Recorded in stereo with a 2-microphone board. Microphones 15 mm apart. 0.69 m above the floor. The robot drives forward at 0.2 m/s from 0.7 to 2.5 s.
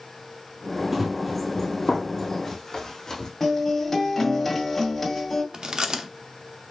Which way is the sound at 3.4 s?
5° left (ahead or behind).